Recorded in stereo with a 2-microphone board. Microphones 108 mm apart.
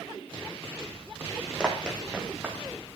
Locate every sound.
1.6 s running footsteps: 10° right (ahead or behind), 1.6 m